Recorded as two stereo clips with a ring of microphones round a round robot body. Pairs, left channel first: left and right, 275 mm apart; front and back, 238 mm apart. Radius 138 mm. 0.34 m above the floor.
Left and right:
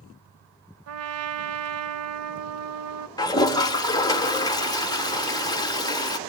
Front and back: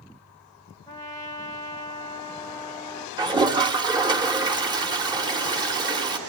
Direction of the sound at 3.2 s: 140° left.